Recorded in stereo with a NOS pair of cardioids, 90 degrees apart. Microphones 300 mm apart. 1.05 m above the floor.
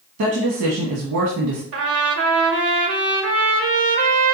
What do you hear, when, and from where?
0.2 s a woman speaking: 60° right, 1.3 m
1.7 s a trumpet: 55° right, 1.0 m